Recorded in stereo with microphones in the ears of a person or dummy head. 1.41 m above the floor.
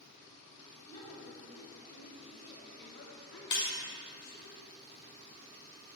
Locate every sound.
0.8 s a woman speaking: 25° left (ahead or behind), 2.5 m; by 4.5 s 80° left, 1.7 m
3.5 s breaking glass: 25° left (ahead or behind), 1.9 m